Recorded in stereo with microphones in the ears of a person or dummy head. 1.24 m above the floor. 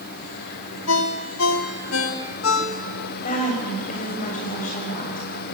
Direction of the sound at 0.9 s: 75° left (ahead or behind).